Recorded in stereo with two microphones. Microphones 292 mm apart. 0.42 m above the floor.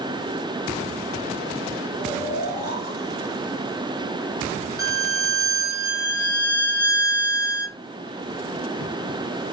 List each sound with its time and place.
2.0 s snoring: 35° left (ahead or behind), 1.8 m
4.8 s a violin: 30° left (ahead or behind), 2.5 m